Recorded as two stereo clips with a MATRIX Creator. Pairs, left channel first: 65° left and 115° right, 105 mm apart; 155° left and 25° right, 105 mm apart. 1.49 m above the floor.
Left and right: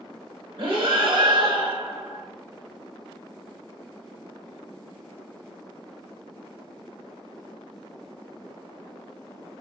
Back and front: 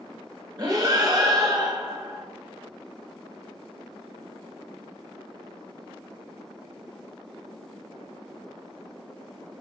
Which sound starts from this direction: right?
Breathing, at 0.6 s.